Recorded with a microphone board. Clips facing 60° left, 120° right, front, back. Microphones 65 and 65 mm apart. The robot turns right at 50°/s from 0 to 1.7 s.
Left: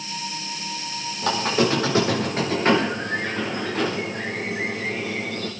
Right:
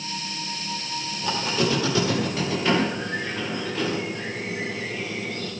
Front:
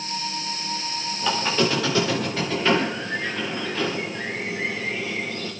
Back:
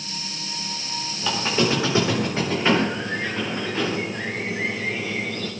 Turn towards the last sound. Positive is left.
turn(degrees=110)